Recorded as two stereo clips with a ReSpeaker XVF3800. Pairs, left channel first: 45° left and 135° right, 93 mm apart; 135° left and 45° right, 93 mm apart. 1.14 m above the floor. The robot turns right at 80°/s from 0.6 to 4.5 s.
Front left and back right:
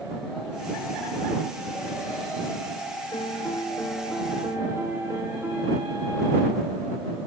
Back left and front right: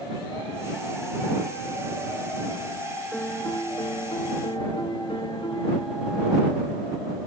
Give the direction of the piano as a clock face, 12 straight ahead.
10 o'clock.